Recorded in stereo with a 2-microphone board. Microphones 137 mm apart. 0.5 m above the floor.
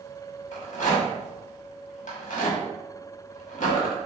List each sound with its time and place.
0.5 s a rattle: 70° left (ahead or behind), 1.4 m